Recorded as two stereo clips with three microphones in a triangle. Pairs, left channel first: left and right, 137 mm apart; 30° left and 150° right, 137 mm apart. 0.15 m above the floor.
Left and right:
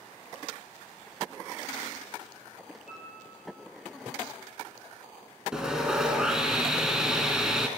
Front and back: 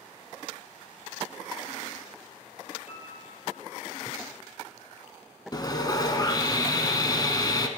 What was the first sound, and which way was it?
A piano, 5° right.